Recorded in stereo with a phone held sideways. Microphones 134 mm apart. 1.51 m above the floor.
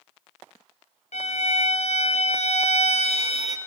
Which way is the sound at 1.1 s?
55° left (ahead or behind).